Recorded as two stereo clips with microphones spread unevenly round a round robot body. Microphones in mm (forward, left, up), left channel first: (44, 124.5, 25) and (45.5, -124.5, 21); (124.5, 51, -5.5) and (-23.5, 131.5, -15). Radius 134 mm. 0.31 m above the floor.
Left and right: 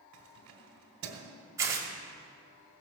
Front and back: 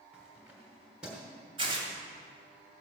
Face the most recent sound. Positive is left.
turn(degrees=-165)